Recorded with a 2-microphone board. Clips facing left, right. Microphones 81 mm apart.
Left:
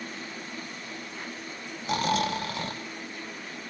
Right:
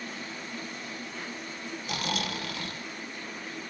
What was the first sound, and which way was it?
Snoring, 35° left (ahead or behind).